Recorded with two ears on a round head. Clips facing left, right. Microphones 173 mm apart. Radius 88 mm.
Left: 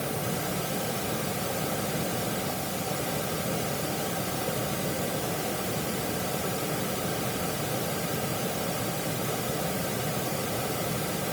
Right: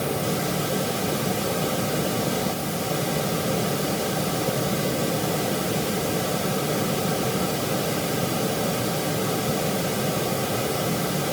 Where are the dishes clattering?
I don't hear dishes clattering.